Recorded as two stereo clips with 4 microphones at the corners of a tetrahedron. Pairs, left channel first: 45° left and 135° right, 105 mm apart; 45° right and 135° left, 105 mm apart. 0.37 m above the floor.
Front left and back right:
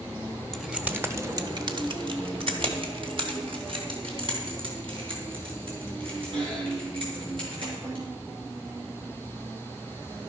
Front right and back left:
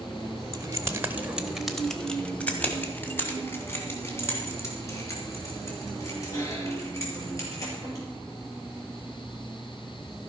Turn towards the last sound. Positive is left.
turn(degrees=-105)